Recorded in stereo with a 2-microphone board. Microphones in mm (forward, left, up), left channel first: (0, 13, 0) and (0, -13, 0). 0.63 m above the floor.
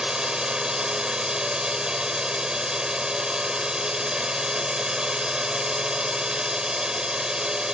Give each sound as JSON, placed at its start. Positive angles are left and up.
{"t": 0.0, "sound": "a drone", "side_deg": -30}